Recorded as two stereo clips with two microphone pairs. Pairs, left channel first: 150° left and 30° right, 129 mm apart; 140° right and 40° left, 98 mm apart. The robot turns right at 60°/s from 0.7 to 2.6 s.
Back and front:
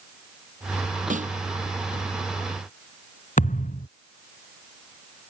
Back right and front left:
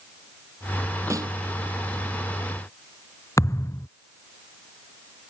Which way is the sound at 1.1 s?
20° right.